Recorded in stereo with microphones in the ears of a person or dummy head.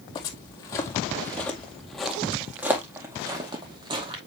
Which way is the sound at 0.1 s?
25° left (ahead or behind).